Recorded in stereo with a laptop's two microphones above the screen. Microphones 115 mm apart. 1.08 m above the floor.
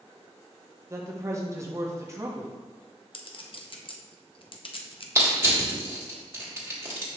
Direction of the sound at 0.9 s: 25° right (ahead or behind).